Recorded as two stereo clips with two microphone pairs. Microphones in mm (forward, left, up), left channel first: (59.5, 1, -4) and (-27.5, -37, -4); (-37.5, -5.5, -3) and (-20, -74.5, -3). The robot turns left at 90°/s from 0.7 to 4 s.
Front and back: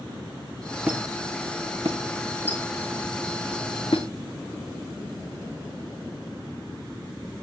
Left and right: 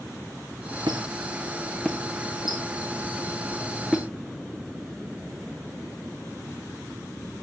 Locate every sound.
0.9 s a squeak: 75° right, 1.7 m; by 4.1 s straight ahead, 1.7 m